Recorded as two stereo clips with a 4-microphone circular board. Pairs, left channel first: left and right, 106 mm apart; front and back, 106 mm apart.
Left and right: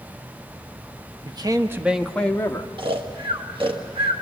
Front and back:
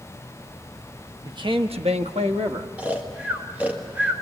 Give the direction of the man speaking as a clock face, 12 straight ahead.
4 o'clock.